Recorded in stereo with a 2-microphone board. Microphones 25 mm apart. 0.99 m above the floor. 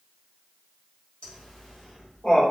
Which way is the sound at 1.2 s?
50° left (ahead or behind).